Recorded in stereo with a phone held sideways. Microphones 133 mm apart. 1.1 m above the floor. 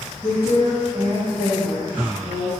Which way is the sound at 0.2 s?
25° right (ahead or behind).